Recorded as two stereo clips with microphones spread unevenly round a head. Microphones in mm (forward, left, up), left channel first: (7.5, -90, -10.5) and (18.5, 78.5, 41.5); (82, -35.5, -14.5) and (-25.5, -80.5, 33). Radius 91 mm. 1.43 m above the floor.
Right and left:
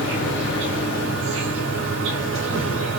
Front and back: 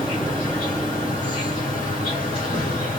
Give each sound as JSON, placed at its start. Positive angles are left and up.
{"t": 0.0, "sound": "an insect", "azimuth_deg": 90, "distance_m": 7.5}